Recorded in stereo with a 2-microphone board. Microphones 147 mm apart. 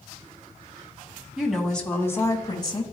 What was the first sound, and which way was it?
A woman speaking, 5° right (ahead or behind).